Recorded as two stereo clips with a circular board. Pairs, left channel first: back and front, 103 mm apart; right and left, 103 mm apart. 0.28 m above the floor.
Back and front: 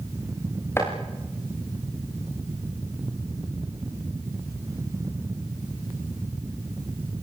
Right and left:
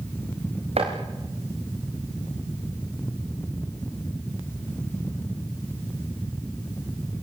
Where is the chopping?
110° left, 6 m.